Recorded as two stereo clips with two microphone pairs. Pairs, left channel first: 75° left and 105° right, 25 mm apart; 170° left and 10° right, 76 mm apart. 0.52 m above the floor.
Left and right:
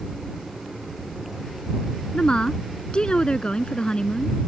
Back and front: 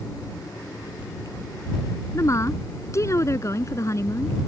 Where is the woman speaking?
125° left.